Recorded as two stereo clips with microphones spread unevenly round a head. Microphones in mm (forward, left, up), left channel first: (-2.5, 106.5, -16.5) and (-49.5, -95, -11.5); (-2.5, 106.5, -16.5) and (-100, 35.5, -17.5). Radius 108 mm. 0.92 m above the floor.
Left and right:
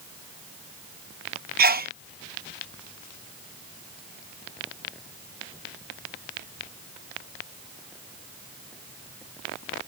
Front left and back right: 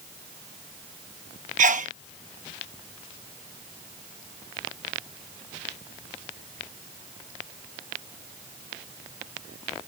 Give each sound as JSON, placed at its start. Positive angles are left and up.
{"t": 1.6, "sound": "a sneeze", "azimuth_deg": -150}